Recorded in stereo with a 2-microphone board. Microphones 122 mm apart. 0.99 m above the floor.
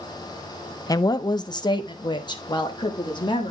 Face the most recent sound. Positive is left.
turn(degrees=40)  # may be behind; listen again after turning